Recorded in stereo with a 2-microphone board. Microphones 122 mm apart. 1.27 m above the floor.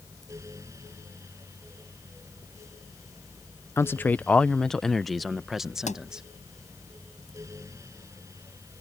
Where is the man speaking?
20° left (ahead or behind); by 6.2 s 5° right (ahead or behind).